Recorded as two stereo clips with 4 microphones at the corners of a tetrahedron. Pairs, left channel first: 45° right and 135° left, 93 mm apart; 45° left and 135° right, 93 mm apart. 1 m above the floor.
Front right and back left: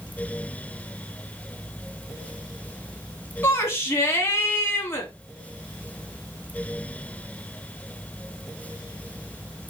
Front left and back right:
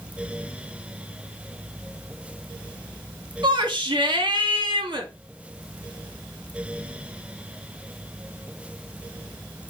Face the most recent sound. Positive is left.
turn(degrees=-105)